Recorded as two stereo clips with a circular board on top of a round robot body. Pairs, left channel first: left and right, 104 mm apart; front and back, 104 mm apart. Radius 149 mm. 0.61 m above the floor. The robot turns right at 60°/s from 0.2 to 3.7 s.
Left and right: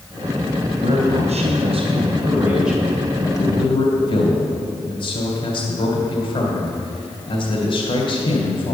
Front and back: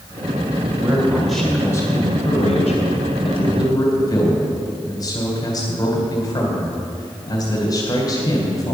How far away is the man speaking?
About 2.5 m.